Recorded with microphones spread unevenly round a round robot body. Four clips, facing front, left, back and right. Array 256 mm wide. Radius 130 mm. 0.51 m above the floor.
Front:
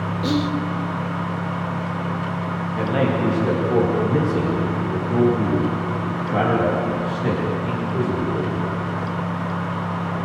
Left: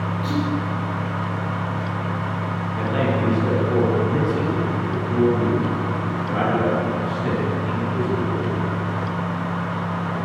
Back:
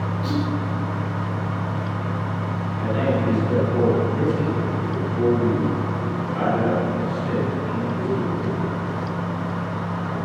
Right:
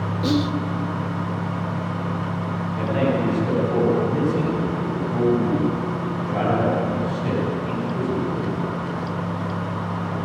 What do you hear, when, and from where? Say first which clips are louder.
0.2 s whispering: right 4 dB, front 4 dB; 50° right, 1.5 m
2.8 s a man speaking: right 1 dB, front 1 dB; 15° left, 8.5 m